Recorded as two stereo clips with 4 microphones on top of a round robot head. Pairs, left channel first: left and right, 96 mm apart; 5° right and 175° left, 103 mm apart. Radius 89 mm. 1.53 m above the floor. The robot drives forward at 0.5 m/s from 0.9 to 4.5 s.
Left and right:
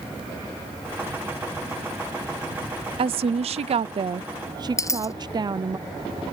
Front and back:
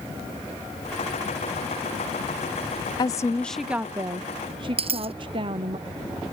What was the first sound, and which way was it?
A woman speaking, 60° right.